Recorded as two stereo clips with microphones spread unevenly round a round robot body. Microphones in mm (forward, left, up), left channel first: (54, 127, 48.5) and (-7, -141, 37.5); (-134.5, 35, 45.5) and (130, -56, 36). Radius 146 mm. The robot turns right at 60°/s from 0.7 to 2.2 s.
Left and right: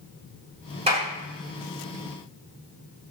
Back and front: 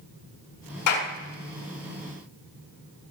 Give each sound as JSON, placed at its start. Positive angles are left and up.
{"t": 0.9, "sound": "a clap", "azimuth_deg": -175, "distance_m": 7.0}